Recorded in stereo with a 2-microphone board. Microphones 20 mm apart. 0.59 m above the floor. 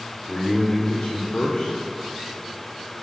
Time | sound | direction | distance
0.3 | a man speaking | 35° left (ahead or behind) | 2 m